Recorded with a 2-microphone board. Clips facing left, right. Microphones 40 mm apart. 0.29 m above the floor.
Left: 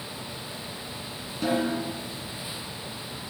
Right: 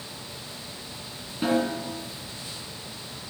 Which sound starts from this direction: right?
A snare drum, at 1.4 s.